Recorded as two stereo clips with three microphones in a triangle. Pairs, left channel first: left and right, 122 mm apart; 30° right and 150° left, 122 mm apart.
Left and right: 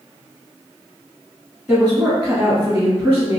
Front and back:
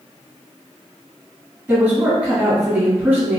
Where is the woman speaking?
150° right, 1.7 m.